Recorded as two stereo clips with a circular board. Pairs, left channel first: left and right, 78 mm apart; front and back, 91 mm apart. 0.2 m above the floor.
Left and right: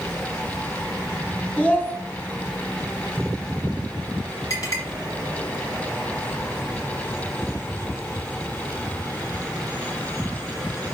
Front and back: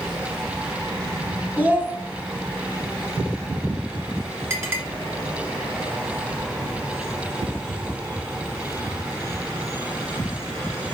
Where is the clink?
125° left, 1.4 m.